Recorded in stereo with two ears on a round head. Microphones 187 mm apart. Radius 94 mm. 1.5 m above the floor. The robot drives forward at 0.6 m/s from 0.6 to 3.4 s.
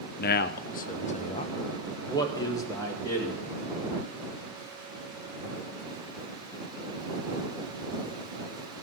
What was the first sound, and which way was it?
A man speaking, 50° left (ahead or behind).